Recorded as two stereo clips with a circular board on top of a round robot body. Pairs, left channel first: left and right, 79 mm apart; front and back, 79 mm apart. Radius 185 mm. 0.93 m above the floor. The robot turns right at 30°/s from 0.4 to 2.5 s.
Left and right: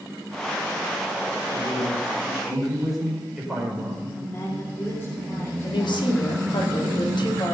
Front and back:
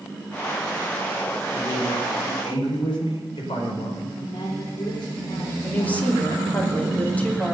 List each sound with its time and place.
1.5 s a man speaking: 30° right, 5.5 m; by 4.0 s 5° right, 5.5 m
4.1 s a woman speaking: 30° left, 3.5 m
5.6 s a woman speaking: 70° left, 3 m